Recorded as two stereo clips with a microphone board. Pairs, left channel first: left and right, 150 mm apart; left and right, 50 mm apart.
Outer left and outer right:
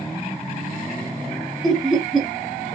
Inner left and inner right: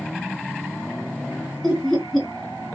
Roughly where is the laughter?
Centre.